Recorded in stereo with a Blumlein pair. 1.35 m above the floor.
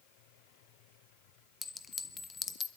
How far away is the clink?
About 1.3 m.